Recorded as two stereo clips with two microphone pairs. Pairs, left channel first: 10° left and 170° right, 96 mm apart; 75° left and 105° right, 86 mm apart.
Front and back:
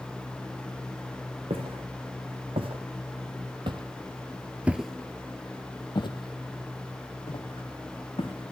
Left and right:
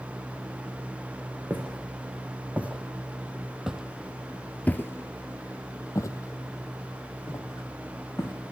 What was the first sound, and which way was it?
Footsteps, 175° right.